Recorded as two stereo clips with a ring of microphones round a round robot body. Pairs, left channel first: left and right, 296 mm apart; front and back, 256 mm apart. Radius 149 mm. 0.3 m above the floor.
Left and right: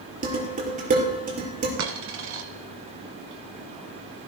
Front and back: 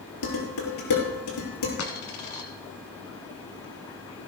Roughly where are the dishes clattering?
Ahead right.